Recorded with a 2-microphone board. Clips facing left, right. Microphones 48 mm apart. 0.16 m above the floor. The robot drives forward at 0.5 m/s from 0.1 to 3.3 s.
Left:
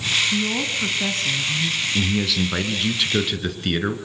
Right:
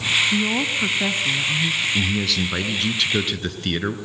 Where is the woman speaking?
20° right (ahead or behind), 1.0 m; by 1.9 s 15° right (ahead or behind), 1.3 m.